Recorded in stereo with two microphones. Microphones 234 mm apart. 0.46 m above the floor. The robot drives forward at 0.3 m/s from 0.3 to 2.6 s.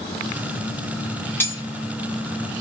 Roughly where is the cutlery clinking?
Centre.